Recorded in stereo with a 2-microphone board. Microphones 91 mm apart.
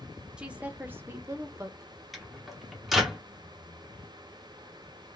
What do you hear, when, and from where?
0.4 s a woman speaking: 10° right (ahead or behind), 0.7 m; by 1.9 s 35° right (ahead or behind), 0.7 m
2.1 s a microwave: centre (ahead or behind), 0.8 m